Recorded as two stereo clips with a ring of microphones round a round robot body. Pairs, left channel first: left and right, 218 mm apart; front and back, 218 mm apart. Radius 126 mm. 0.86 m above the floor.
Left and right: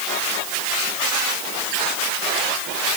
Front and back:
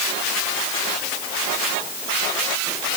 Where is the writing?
I don't hear writing.